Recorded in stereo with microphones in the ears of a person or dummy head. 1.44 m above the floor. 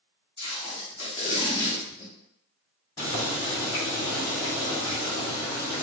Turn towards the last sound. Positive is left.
turn(degrees=25)  # may be behind; listen again after turning